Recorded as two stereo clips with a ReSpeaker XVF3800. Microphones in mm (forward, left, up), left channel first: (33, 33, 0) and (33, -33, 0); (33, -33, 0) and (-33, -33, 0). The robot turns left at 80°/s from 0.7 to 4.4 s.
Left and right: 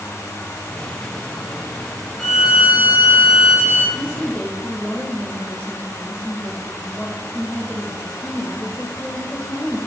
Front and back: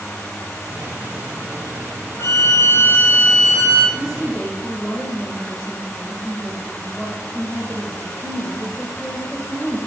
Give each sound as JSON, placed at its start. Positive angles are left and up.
{"t": 2.2, "sound": "a violin", "azimuth_deg": 20, "distance_m": 0.8}
{"t": 4.0, "sound": "a woman speaking", "azimuth_deg": 100, "distance_m": 1.5}